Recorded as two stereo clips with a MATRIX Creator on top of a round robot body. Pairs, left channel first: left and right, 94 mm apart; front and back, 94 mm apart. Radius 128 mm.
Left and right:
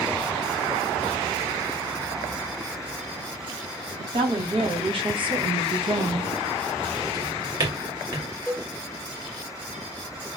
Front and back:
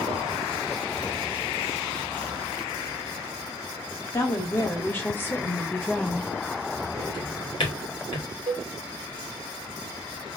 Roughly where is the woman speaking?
Ahead right.